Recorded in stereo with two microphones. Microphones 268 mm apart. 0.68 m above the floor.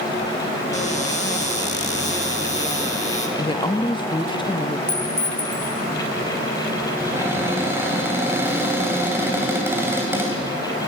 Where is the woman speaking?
20° left (ahead or behind), 0.6 m.